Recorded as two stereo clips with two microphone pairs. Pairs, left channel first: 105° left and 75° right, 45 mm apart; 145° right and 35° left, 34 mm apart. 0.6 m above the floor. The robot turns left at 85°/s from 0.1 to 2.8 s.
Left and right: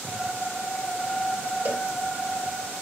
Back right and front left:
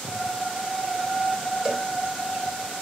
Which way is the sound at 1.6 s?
35° right.